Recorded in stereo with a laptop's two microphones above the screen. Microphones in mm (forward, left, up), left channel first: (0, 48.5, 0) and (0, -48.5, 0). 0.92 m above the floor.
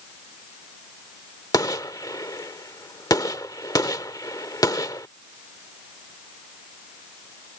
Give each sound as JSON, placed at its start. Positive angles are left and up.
{"t": 1.5, "sound": "a gunshot", "side_deg": 40}